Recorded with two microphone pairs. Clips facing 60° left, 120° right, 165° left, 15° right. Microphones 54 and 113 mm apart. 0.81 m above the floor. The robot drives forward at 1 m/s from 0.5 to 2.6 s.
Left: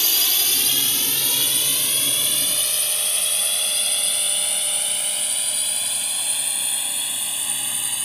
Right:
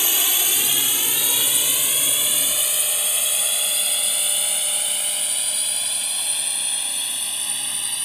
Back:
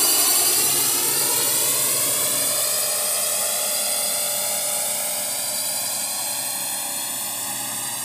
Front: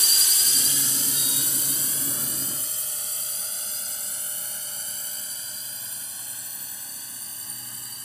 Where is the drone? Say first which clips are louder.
Right 1 dB, back 11 dB; 170° left; by 8.1 s 145° left.